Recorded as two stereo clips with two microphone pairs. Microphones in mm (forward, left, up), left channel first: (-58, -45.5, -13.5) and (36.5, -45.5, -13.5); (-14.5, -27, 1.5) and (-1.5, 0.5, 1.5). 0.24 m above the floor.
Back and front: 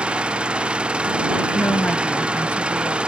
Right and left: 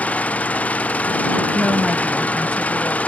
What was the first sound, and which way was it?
An engine running, 80° right.